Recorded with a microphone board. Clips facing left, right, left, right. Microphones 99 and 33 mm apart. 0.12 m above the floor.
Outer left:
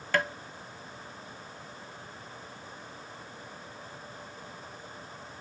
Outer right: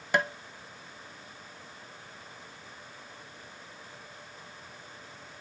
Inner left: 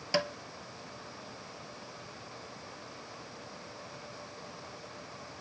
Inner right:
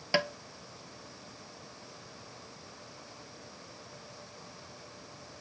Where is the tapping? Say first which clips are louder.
Outer right 1 dB, inner right 2 dB; 20° right (ahead or behind), 0.5 m.